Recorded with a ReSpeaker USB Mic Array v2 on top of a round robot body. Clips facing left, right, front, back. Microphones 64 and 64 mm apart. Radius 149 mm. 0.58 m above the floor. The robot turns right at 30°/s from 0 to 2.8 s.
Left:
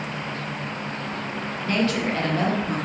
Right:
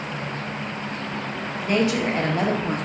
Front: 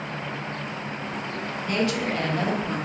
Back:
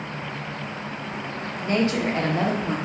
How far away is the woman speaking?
About 0.7 m.